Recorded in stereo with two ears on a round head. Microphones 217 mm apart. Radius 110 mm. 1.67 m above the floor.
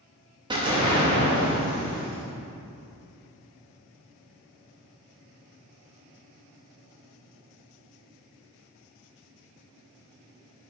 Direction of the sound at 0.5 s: 20° right (ahead or behind).